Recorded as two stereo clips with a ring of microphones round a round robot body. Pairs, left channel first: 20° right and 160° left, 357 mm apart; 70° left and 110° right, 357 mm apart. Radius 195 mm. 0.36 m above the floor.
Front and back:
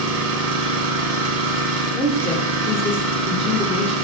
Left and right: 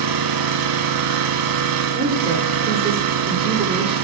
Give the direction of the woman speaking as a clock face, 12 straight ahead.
2 o'clock.